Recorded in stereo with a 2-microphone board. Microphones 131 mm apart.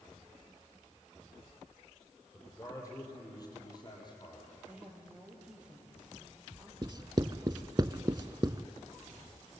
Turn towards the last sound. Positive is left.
turn(degrees=-35)  # may be behind; listen again after turning